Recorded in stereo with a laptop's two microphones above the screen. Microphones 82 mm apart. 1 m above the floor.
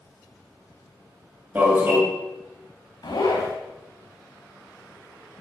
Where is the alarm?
20° right (ahead or behind), 9.5 m.